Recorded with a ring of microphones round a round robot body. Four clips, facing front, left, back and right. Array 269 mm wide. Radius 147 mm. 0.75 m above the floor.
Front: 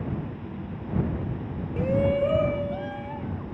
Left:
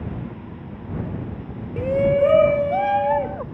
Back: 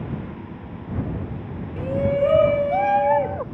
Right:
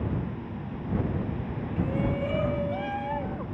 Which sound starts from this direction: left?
A shout, at 1.8 s.